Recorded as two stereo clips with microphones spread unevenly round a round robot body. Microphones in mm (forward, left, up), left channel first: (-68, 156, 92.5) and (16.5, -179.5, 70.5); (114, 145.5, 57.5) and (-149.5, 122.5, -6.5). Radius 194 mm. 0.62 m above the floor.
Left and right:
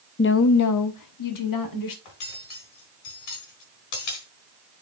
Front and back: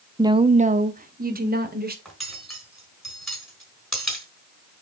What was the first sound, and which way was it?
A woman speaking, 145° left.